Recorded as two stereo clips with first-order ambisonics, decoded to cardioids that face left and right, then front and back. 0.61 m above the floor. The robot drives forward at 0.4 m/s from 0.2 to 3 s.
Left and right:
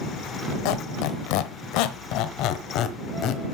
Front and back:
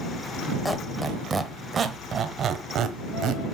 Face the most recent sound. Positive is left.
turn(degrees=130)